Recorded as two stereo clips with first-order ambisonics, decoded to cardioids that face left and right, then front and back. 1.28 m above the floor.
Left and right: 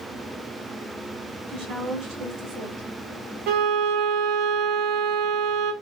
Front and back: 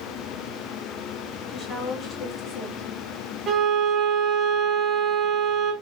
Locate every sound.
1.5 s a woman speaking: 75° right, 3 m
3.5 s a violin: 115° right, 0.9 m